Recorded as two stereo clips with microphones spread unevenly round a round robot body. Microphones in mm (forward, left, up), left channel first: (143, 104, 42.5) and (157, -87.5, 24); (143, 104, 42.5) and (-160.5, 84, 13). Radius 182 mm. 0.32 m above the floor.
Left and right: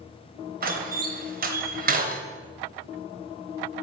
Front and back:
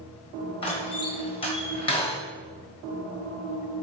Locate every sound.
0.6 s a door slam: 70° right, 1.3 m